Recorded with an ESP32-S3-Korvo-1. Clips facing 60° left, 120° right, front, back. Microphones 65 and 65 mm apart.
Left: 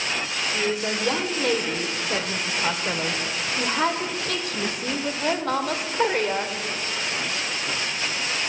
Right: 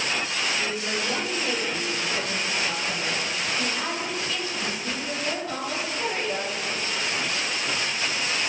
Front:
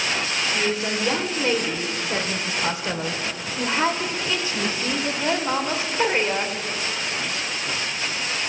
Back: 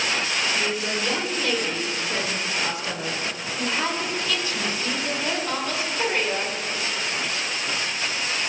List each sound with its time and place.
0.5 s a woman speaking: 65° left, 1.6 m